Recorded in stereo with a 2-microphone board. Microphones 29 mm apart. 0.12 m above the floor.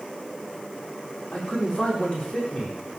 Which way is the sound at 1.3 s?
35° left (ahead or behind).